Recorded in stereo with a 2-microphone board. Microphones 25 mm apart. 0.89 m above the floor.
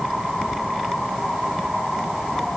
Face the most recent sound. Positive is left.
No sound to turn to.